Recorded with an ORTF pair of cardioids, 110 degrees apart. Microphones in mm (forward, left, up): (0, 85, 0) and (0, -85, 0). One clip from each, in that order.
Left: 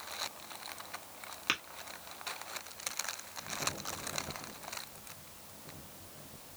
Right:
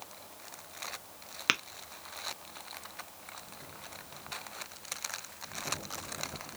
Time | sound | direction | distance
1.5 | tapping | 30° right | 0.7 m